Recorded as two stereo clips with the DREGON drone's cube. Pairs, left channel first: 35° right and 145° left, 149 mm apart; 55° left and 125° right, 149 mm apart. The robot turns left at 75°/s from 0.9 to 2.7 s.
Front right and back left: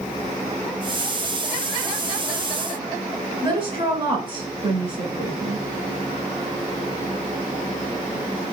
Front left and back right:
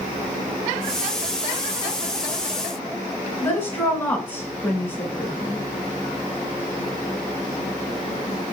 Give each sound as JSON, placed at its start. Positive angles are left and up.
{"t": 3.4, "sound": "a woman speaking", "azimuth_deg": 125, "distance_m": 1.9}